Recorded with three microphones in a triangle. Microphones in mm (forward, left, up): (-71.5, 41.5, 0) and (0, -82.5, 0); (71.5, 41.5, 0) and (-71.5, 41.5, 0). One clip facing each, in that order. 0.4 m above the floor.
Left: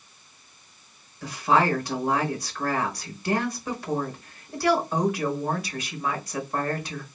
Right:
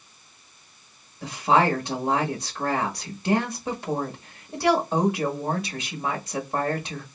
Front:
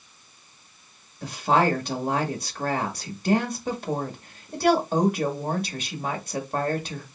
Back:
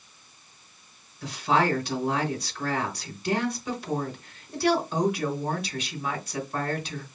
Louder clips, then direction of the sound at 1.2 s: Right 1 dB, front 2 dB; straight ahead.